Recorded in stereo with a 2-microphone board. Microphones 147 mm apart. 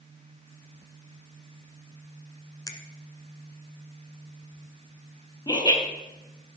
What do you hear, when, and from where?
2.7 s a finger snap: 25° left (ahead or behind), 1.0 m
5.5 s laughter: 30° left (ahead or behind), 3 m